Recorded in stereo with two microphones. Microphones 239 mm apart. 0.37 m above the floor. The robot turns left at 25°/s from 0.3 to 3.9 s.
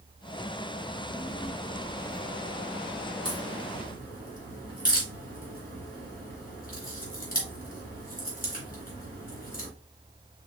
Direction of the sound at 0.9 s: 160° left.